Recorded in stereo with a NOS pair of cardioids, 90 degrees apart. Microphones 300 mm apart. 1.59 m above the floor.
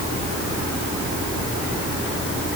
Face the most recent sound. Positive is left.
No sound to turn to.